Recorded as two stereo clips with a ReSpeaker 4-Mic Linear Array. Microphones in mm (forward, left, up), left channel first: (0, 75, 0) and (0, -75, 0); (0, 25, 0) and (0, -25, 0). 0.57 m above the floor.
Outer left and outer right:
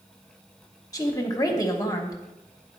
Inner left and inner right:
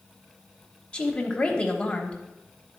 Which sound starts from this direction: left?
A woman speaking, at 0.9 s.